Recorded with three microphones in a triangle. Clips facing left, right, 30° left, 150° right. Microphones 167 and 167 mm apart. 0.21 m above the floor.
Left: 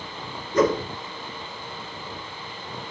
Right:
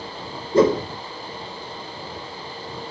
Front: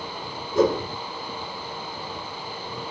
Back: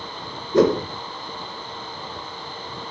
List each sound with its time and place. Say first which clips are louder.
0.5 s a whoosh: right 4 dB, back 4 dB; 150° right, 0.7 m